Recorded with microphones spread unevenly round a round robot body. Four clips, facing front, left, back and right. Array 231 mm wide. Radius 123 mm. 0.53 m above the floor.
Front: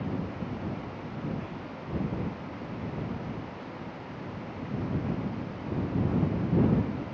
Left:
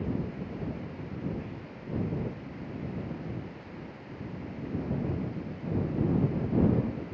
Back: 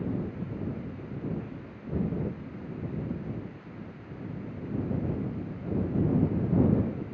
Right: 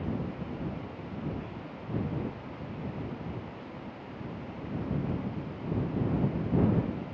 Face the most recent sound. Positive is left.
No sound to turn to.